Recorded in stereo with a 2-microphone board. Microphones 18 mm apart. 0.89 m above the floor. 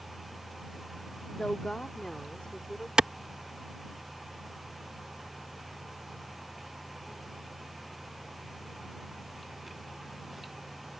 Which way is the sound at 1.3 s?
55° left (ahead or behind).